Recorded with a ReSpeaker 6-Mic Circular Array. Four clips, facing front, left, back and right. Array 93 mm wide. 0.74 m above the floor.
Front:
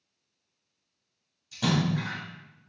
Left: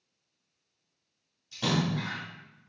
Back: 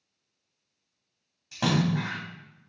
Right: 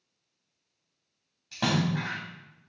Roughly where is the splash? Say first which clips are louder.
Right 2 dB, back 1 dB; behind right.